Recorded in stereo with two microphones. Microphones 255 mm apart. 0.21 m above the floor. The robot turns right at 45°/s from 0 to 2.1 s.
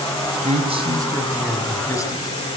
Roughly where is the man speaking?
Ahead right.